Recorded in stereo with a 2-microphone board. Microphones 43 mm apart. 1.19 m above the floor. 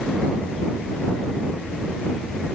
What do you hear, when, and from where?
Only background noise.